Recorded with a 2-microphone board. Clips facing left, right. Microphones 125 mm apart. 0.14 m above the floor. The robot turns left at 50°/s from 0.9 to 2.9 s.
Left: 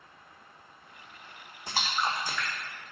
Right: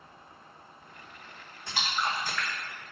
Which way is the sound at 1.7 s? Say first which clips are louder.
Left 1 dB; 45° left (ahead or behind).